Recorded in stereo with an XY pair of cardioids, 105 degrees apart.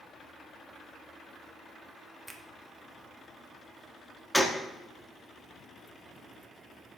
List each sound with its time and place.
2.3 s a finger snap: 10° right, 1.3 m
4.3 s a gunshot: 5° left, 1.2 m